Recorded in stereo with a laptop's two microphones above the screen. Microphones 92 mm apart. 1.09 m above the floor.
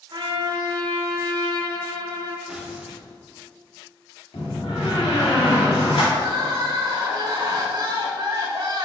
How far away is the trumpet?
About 1.1 m.